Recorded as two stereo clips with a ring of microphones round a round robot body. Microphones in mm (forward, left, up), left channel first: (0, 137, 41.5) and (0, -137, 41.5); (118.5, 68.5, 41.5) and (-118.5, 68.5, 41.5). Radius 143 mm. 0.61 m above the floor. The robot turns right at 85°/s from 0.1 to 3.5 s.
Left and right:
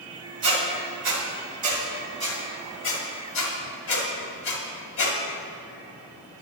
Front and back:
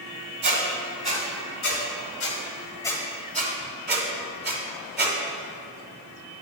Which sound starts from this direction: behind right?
A squeak, at 0.4 s.